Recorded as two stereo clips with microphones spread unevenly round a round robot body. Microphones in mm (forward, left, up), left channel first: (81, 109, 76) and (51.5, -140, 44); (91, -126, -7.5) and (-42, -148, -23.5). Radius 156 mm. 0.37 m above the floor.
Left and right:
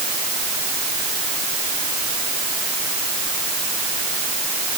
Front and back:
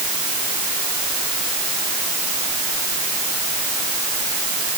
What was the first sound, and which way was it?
Only background noise.